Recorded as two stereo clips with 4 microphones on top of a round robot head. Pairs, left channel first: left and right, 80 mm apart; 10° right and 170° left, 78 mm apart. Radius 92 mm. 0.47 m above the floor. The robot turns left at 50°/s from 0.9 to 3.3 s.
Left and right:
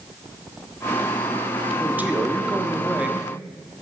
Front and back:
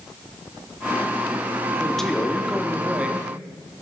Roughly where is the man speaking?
Right.